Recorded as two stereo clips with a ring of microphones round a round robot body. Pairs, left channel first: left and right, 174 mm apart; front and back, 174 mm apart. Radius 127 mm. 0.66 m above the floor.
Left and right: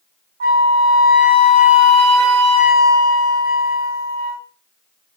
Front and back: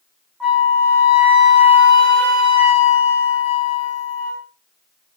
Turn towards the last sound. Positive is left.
turn(degrees=-90)